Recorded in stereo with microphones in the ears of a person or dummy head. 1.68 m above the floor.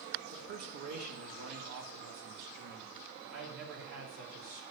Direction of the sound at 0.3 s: 50° right (ahead or behind).